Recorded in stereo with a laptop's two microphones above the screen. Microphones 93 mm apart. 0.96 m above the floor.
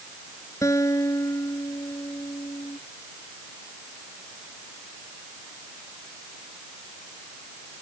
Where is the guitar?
35° left (ahead or behind).